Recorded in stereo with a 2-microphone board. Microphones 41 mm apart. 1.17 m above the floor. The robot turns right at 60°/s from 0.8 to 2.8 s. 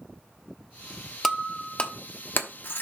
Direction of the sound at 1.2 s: Centre (ahead or behind).